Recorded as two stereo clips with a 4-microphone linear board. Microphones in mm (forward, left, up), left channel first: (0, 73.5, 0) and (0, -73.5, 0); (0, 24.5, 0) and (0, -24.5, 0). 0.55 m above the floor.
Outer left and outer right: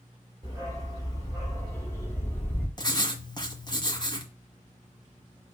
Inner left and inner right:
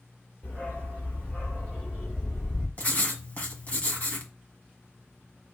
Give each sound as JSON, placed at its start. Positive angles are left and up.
{"t": 0.4, "sound": "a dog barking", "side_deg": 30, "distance_m": 4.0}
{"t": 2.8, "sound": "writing", "side_deg": 30, "distance_m": 1.5}